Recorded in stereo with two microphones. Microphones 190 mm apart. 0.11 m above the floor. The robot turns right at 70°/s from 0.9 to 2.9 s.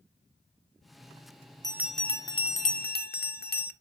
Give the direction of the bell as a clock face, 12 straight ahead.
1 o'clock.